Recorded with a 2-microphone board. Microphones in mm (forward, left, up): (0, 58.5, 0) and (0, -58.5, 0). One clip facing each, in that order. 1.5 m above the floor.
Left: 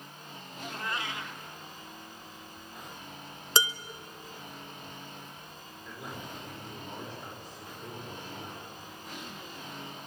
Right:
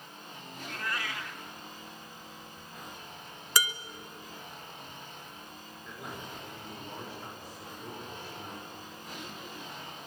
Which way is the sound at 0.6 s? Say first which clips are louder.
Left 1 dB; 20° left (ahead or behind).